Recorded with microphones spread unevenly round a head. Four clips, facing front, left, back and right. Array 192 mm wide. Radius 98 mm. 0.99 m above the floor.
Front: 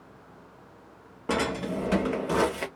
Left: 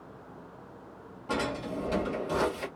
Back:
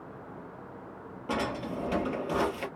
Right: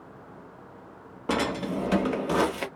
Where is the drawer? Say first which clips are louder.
Right 5 dB, front 4 dB; 55° right, 0.7 m.